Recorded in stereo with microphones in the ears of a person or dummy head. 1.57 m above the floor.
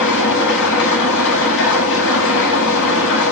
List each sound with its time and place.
0.0 s an engine running: 70° left (ahead or behind), 9.5 m